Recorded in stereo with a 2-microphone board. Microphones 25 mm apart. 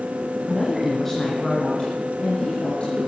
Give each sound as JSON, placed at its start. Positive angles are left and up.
{"t": 0.5, "sound": "a woman speaking", "side_deg": -5, "distance_m": 2.5}